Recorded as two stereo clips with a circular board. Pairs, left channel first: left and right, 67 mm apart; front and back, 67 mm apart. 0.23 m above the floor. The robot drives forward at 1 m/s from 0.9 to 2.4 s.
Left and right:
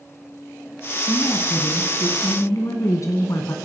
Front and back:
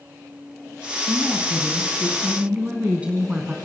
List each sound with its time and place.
1.0 s a woman speaking: 65° left, 2 m; by 3.5 s 110° left, 2 m